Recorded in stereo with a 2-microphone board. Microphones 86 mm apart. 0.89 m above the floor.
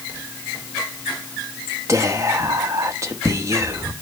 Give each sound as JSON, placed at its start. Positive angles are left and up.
{"t": 1.9, "sound": "whispering", "side_deg": -35, "distance_m": 1.2}